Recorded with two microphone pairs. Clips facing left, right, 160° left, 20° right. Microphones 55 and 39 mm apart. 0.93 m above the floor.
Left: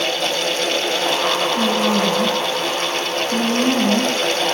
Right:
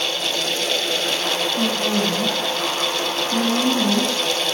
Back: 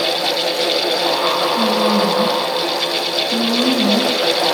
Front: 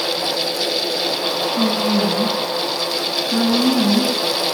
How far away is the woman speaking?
About 9.5 m.